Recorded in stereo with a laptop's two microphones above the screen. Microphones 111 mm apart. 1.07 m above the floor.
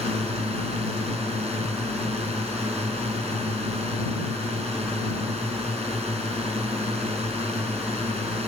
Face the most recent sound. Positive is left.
turn(degrees=-70)  # may be behind; listen again after turning